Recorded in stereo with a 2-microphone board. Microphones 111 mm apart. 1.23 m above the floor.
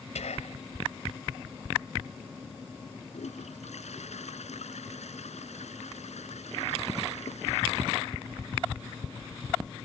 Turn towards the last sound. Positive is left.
turn(degrees=90)